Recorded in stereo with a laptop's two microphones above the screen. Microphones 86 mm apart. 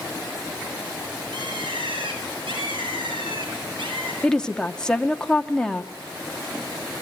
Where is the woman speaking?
10° left (ahead or behind), 1.6 m.